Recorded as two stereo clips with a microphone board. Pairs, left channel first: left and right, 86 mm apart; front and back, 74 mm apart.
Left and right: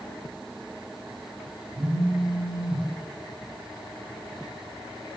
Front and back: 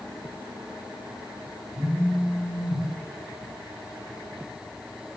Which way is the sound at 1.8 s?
75° right.